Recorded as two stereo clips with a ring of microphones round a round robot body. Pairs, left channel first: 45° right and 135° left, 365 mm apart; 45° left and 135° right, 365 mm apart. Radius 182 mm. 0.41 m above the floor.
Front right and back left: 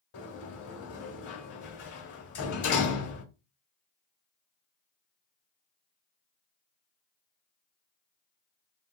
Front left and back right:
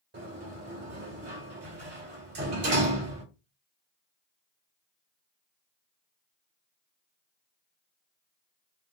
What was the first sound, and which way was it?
A sliding door, 75° right.